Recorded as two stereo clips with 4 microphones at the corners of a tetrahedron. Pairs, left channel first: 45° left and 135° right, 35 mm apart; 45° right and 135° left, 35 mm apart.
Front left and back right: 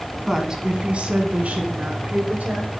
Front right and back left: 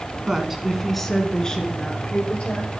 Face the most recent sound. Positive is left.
turn(degrees=-100)